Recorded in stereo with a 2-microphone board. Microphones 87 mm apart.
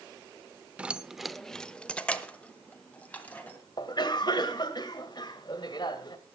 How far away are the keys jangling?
About 0.5 m.